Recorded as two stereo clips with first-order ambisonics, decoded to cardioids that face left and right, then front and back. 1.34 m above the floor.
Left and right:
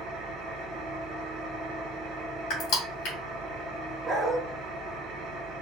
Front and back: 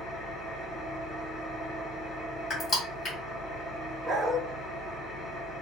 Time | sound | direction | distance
0.0 | an engine running | 65° right | 0.9 m
2.5 | crushing | 70° left | 2 m
4.0 | a dog barking | 145° right | 0.7 m